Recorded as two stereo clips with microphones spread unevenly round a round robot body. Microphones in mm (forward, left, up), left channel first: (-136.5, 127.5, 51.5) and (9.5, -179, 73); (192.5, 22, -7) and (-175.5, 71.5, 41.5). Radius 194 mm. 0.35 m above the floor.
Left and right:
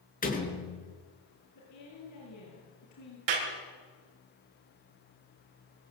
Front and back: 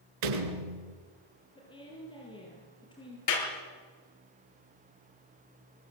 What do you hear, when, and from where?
0.2 s a door slam: straight behind, 4.5 m
1.6 s a woman speaking: 70° left, 8 m
3.3 s a clap: 55° right, 5 m